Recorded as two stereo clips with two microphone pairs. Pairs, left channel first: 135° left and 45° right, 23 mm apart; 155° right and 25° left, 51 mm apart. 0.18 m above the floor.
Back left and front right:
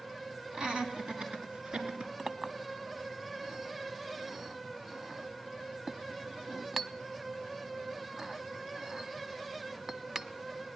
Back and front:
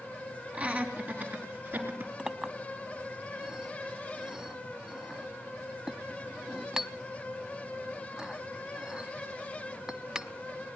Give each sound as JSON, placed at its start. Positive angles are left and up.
{"t": 0.5, "sound": "laughter", "azimuth_deg": -25, "distance_m": 2.5}
{"t": 2.2, "sound": "a clink", "azimuth_deg": -20, "distance_m": 0.6}